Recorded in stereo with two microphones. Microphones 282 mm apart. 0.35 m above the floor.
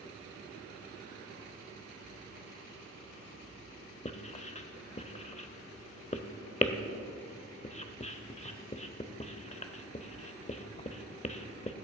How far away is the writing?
About 0.5 m.